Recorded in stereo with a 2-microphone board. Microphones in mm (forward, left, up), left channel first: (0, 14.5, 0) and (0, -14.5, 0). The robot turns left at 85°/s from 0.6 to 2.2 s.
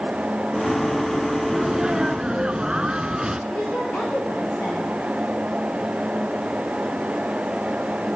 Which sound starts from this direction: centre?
A sneeze, at 1.5 s.